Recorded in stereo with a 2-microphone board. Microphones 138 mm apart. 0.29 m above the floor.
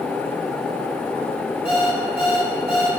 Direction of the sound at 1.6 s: 45° left (ahead or behind).